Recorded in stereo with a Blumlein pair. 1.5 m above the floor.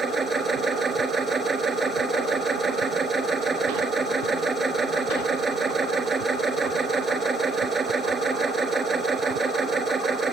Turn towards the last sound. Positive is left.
turn(degrees=-15)